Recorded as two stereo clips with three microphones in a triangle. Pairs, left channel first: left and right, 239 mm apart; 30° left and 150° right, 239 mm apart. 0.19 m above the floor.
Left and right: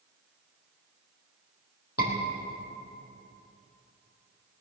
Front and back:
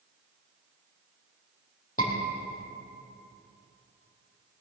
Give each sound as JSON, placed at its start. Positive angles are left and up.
{"t": 2.0, "sound": "a scream", "azimuth_deg": 85, "distance_m": 5.5}